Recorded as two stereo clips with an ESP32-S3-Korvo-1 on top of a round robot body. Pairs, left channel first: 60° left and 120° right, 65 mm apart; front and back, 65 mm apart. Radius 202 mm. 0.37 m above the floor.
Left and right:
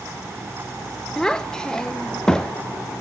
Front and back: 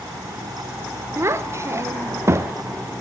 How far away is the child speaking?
About 0.9 m.